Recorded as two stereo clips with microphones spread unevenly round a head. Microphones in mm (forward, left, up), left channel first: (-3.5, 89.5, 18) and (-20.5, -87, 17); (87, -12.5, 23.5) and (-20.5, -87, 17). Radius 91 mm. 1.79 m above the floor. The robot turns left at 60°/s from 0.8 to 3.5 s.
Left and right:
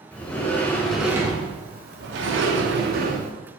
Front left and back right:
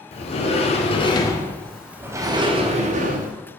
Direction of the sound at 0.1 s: 5° left.